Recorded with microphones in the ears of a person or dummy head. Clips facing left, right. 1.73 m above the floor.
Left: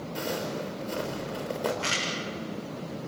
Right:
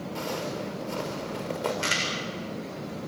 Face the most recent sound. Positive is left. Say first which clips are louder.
# right 1 dB
turn(degrees=-45)  # may be behind; listen again after turning